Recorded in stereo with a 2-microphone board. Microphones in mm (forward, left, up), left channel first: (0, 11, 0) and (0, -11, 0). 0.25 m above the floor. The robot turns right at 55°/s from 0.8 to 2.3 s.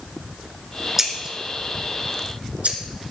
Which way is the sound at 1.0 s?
15° right (ahead or behind).